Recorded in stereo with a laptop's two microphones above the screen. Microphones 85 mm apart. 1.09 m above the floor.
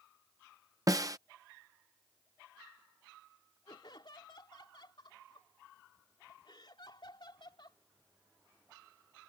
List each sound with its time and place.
0.9 s a snare drum: 40° right (ahead or behind)
3.7 s laughter: 65° left (ahead or behind)